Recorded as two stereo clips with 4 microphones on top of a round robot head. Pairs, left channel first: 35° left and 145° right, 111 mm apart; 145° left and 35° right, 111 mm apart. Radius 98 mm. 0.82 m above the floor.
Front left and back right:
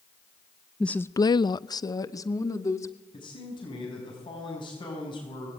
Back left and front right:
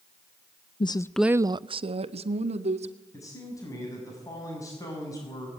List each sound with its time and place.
0.8 s a woman speaking: 120° left, 0.7 m; by 2.9 s 25° right, 2 m
3.1 s a man speaking: 80° left, 6 m